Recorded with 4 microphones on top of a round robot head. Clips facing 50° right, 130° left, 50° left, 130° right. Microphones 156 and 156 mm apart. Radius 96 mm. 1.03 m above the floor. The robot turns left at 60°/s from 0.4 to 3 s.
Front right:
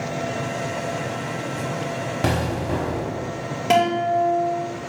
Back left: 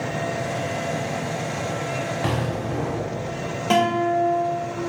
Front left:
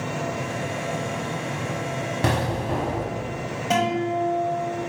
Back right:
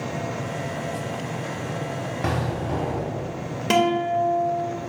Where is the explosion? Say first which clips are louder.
Front right 6 dB, front left 2 dB; 5° right, 0.9 m; by 3.3 s 55° right, 0.9 m.